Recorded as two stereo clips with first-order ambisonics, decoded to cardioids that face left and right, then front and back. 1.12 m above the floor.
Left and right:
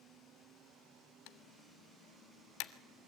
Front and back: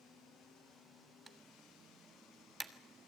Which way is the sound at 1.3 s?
105° left.